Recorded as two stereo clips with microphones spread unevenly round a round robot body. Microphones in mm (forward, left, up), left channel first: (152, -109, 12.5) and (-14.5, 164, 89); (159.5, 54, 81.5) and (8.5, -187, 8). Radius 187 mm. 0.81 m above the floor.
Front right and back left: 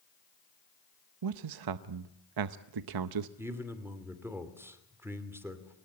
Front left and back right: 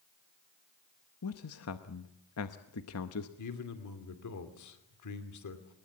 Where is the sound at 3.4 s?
35° left, 2.5 m.